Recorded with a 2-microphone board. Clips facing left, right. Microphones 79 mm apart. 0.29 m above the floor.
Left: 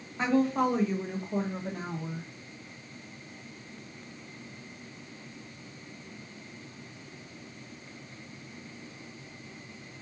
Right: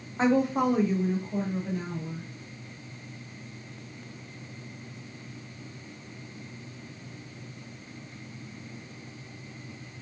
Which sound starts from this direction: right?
A woman speaking, at 0.2 s.